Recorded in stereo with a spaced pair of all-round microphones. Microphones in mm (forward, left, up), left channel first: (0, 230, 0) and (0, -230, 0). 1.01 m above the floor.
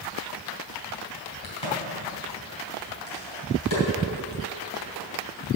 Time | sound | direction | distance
1.4 | a crack | 80° left | 4 m